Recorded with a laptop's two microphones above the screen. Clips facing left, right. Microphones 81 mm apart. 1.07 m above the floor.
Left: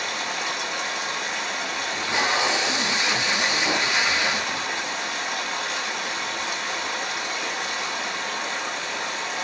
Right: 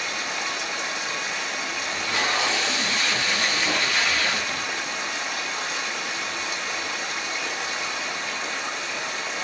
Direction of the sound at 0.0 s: 55° left (ahead or behind).